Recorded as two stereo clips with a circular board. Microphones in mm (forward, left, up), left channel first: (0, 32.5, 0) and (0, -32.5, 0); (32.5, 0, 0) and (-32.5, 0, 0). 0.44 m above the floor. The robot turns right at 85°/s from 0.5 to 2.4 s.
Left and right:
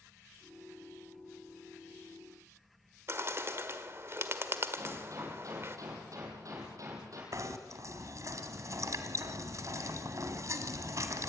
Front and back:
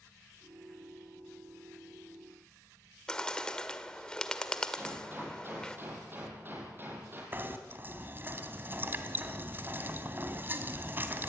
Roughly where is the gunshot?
Behind right.